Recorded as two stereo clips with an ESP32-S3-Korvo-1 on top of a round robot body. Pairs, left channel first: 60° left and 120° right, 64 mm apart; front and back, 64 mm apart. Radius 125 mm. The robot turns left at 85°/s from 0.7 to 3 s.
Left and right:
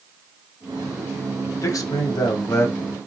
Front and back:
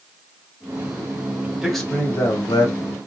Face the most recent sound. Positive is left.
turn(degrees=-20)